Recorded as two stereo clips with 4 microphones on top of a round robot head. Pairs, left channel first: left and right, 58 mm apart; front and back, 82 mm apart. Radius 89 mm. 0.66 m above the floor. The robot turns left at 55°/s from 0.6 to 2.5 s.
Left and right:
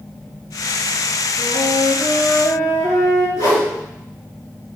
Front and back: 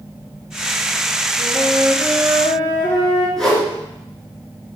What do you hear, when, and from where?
1.4 s a flute: 130° left, 2.5 m; by 3.3 s 70° left, 2.5 m
3.4 s a whoosh: 80° left, 2.5 m